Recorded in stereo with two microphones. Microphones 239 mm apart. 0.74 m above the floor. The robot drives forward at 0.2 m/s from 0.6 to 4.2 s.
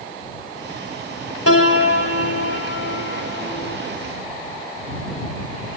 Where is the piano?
65° left (ahead or behind), 2 m; by 3.8 s 60° left (ahead or behind), 2.5 m.